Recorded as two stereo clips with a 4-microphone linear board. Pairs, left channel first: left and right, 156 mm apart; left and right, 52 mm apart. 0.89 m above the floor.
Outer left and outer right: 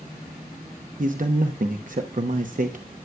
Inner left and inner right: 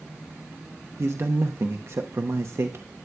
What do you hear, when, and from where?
1.0 s a man speaking: 60° right (ahead or behind), 0.8 m